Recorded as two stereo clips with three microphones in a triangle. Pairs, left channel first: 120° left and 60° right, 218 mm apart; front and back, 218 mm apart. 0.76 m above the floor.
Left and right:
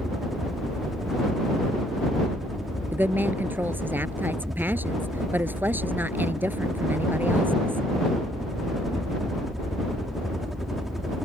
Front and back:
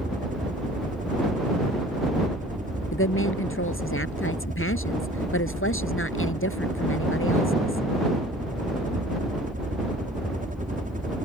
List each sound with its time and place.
0.0 s a helicopter: 150° right
2.9 s a woman speaking: 20° left